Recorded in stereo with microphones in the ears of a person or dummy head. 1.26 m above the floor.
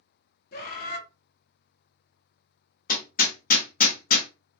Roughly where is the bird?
Left.